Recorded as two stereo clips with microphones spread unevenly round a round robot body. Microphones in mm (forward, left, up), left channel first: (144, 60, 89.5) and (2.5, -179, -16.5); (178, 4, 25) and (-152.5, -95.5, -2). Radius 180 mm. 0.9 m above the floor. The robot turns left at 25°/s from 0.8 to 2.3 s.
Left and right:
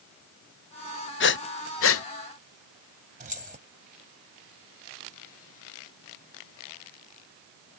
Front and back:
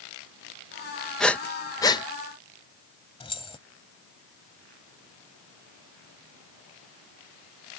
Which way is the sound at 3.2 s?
60° right.